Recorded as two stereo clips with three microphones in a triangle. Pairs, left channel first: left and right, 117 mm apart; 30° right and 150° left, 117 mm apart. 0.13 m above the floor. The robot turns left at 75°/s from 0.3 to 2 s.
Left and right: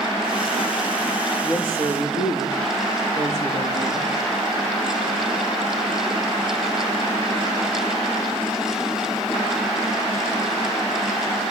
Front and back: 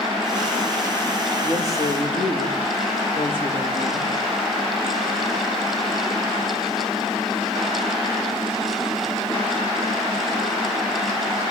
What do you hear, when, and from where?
1.4 s a woman speaking: 30° right, 8.5 m; by 4.1 s 75° right, 8.5 m